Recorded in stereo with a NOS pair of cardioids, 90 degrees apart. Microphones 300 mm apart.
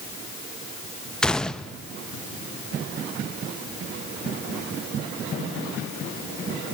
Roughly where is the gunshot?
Ahead.